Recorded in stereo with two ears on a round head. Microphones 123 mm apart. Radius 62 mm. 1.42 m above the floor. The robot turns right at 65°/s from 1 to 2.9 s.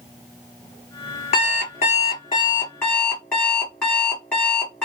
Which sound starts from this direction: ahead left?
An alarm clock, at 1.3 s.